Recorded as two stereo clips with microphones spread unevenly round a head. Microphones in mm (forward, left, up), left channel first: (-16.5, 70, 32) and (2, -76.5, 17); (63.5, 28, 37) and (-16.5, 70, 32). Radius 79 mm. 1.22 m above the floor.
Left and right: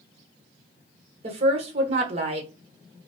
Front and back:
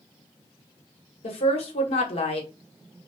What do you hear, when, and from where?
1.2 s a woman speaking: 30° right, 1.1 m